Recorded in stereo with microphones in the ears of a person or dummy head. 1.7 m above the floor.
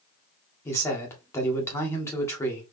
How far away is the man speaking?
About 1.5 m.